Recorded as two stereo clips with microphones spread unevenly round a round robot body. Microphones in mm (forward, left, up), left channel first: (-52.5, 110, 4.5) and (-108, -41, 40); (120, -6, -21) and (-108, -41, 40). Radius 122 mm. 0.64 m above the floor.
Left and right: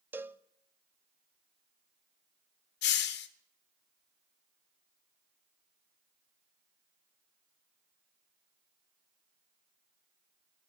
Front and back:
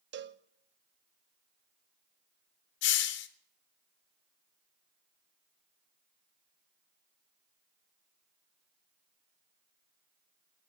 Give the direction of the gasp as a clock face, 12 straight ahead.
No gasp in this recording.